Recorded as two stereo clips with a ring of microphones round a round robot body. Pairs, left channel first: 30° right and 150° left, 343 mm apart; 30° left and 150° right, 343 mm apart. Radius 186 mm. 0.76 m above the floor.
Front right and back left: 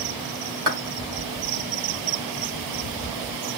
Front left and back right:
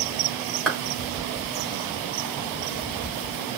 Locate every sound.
0.7 s a clap: 120° left, 4 m